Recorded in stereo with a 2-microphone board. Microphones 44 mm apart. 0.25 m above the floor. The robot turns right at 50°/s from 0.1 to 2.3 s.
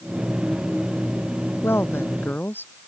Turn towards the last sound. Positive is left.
turn(degrees=125)